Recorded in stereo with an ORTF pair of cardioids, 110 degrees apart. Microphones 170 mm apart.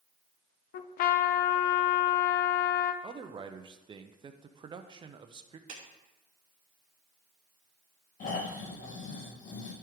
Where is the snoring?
50° left, 2 m.